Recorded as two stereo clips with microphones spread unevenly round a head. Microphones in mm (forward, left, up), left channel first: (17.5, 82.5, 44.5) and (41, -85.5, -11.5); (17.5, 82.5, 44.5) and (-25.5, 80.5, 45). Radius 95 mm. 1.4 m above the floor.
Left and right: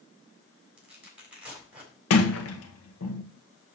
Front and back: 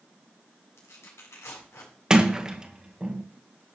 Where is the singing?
No singing in this recording.